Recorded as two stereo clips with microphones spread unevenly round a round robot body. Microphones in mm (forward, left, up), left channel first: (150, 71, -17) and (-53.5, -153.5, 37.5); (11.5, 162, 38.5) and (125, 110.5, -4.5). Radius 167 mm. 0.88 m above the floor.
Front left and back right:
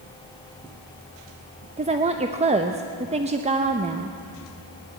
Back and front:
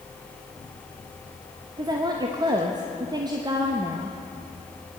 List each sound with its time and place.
1.8 s a woman speaking: 60° right, 0.6 m